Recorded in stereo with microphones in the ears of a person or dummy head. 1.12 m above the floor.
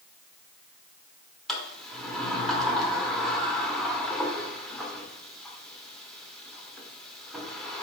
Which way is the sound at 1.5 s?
10° left (ahead or behind).